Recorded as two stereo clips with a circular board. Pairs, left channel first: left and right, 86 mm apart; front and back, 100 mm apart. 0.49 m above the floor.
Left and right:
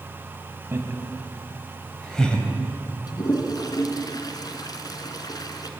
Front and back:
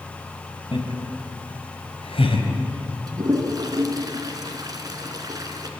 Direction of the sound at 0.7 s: 30° right.